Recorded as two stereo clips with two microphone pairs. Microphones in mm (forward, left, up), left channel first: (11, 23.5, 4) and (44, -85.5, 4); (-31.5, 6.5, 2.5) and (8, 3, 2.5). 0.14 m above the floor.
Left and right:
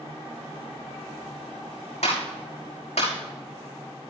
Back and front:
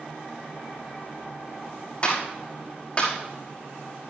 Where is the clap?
115° left, 6 m.